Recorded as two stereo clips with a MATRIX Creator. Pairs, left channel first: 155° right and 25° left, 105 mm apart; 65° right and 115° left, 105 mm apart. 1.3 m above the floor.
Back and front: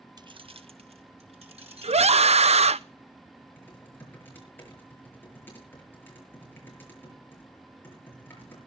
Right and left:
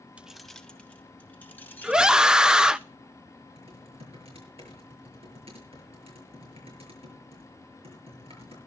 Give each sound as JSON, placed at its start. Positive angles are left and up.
{"t": 0.2, "sound": "keys jangling", "azimuth_deg": 40, "distance_m": 0.6}
{"t": 1.8, "sound": "a scream", "azimuth_deg": 30, "distance_m": 0.5}
{"t": 3.6, "sound": "typing on a keyboard", "azimuth_deg": 130, "distance_m": 7.5}